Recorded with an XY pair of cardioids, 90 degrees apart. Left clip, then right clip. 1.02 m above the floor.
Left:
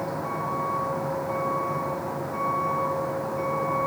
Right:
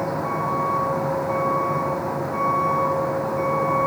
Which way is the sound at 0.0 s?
35° right.